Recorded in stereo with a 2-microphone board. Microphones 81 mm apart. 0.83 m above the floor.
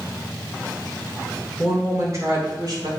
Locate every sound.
1.6 s a woman speaking: 25° right (ahead or behind), 2.5 m; by 2.9 s 60° right (ahead or behind), 2.5 m